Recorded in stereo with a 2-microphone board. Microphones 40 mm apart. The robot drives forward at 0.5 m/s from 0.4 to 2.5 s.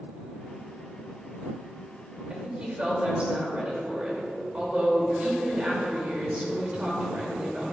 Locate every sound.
2.3 s a woman speaking: 30° right (ahead or behind), 2.5 m